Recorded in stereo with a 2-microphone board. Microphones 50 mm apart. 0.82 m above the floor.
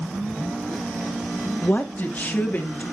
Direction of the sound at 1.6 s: 35° left (ahead or behind).